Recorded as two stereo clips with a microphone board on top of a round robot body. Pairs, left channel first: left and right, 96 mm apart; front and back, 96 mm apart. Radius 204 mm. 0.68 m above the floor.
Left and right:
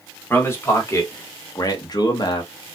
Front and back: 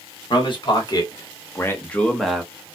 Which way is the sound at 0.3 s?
25° left.